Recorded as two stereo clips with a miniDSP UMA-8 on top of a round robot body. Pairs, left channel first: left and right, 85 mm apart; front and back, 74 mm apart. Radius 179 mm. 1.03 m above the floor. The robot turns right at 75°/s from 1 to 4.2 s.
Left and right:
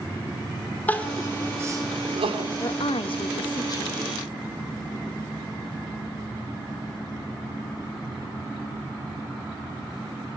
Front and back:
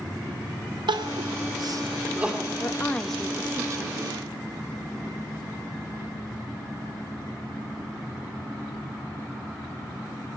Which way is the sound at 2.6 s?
50° left.